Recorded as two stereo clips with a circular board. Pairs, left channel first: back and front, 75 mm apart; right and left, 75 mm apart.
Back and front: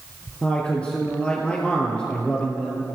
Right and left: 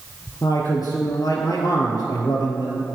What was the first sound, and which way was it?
A man speaking, 110° right.